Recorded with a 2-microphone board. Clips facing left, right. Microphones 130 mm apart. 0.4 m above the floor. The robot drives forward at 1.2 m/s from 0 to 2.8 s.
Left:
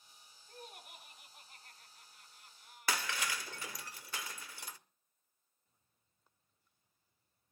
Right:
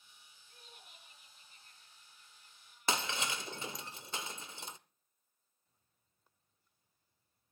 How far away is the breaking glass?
About 0.6 m.